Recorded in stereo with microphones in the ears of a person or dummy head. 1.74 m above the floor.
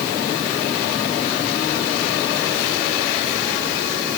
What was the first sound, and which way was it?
Only background noise.